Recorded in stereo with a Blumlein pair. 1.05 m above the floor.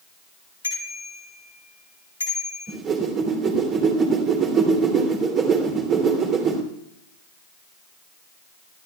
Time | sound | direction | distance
0.6 | a bicycle bell | 70° left | 8.5 m
2.7 | a whoosh | 25° right | 3 m